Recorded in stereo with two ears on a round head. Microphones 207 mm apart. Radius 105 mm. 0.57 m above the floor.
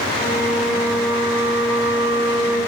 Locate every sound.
0.1 s a flute: 50° right (ahead or behind), 0.8 m